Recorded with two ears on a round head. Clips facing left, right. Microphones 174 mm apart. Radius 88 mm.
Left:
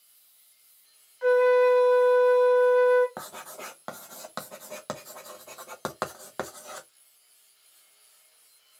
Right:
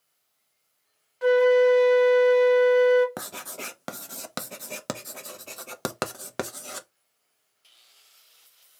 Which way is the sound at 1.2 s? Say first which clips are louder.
Right 2 dB; 45° right (ahead or behind).